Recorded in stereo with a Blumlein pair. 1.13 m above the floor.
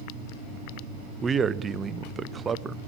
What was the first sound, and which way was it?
A man speaking, 15° right.